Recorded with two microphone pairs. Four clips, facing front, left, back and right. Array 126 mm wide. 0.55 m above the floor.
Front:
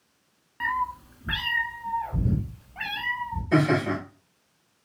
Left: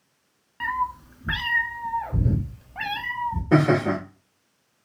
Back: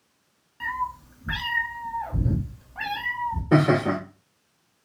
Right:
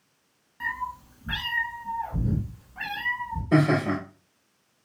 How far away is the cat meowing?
About 0.8 m.